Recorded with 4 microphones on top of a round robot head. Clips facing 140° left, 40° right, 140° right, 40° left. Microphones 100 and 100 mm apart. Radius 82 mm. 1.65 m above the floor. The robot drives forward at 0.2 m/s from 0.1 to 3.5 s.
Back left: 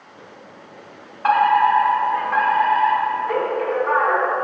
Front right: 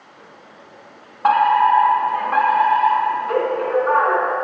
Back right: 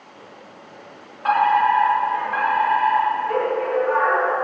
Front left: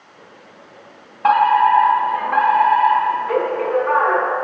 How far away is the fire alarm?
About 3.5 m.